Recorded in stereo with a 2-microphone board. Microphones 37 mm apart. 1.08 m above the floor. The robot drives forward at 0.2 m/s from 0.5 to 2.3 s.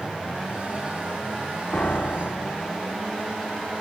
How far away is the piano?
About 0.5 m.